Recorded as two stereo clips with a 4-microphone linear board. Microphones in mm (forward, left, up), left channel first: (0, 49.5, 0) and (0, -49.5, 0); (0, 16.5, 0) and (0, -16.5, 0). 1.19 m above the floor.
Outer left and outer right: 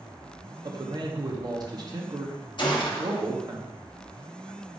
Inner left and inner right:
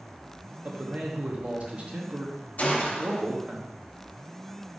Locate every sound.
0.6 s a man speaking: 45° right (ahead or behind), 0.8 m
2.6 s a gunshot: 55° left (ahead or behind), 0.8 m